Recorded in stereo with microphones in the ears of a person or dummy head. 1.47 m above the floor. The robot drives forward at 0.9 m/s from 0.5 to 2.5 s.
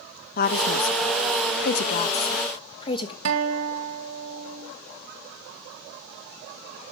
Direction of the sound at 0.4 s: 50° left (ahead or behind).